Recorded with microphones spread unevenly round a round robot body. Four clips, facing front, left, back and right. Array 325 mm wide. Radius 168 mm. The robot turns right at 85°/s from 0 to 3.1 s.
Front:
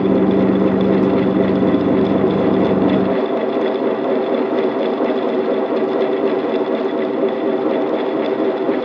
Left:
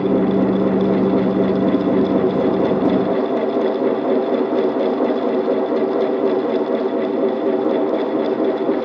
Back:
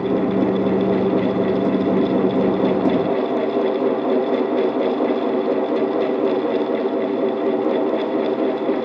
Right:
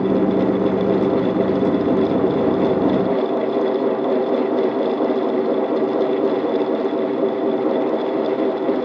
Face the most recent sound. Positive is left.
No sound to turn to.